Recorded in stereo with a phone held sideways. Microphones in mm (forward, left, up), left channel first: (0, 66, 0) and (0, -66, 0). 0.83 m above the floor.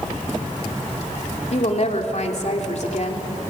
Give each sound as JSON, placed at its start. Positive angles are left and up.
{"t": 1.5, "sound": "a woman speaking", "side_deg": 60, "distance_m": 2.5}